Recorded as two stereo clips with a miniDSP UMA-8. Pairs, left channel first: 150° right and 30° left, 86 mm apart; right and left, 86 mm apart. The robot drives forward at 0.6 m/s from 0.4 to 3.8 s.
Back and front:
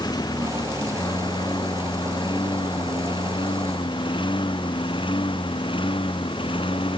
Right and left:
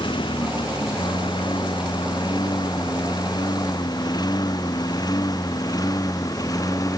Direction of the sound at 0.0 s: 110° right.